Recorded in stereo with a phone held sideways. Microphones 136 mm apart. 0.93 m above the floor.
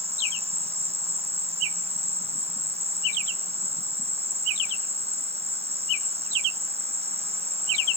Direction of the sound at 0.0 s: 45° right (ahead or behind).